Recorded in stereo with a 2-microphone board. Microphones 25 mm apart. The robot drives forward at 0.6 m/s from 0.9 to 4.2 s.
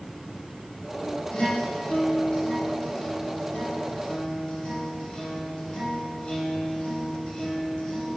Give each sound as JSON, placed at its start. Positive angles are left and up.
{"t": 1.3, "sound": "a guitar", "side_deg": 45, "distance_m": 3.5}